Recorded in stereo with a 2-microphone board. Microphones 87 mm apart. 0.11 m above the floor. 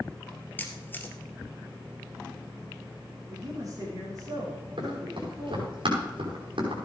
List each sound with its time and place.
0.6 s a camera shutter: 20° left (ahead or behind), 1.5 m
3.3 s a man speaking: 40° right (ahead or behind), 6 m
4.8 s running footsteps: 70° right (ahead or behind), 6.5 m; by 6.8 s 75° right (ahead or behind), 5.5 m